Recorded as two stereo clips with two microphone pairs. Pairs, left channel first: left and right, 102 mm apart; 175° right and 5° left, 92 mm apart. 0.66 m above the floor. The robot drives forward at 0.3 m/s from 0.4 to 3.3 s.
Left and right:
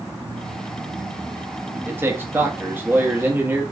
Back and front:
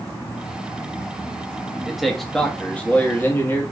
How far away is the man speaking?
About 0.9 m.